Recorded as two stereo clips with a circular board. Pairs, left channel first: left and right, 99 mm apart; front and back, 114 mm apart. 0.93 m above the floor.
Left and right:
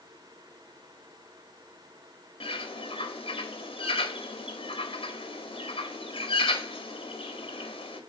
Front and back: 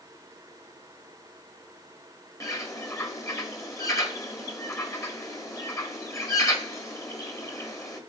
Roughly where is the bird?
Ahead left.